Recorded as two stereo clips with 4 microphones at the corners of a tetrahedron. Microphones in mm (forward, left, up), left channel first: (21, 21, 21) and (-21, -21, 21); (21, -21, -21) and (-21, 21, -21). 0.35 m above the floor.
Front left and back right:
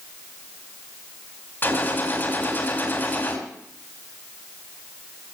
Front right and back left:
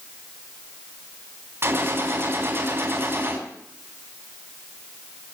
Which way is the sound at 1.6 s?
95° left.